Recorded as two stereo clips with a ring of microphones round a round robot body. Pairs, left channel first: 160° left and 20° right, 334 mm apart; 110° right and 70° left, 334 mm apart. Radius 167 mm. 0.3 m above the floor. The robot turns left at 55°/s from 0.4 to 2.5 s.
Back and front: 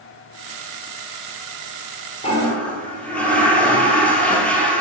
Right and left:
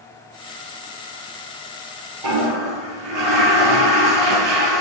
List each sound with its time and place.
2.2 s a toilet flushing: 85° left, 2.5 m; by 4.8 s 70° left, 2.5 m